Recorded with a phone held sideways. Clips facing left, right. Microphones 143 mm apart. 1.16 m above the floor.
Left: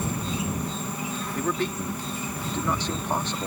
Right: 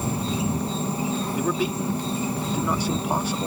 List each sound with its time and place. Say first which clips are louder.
0.0 s an insect: right 3 dB; 30° right (ahead or behind)
1.4 s a man speaking: even; 10° right (ahead or behind)